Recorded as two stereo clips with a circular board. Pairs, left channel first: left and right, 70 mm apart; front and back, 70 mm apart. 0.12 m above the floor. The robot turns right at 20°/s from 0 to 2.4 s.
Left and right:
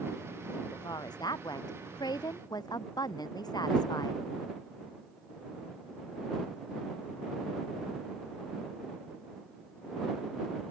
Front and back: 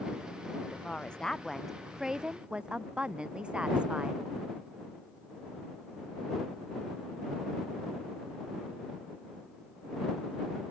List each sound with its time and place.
0.7 s a woman speaking: 70° left; by 4.2 s 105° left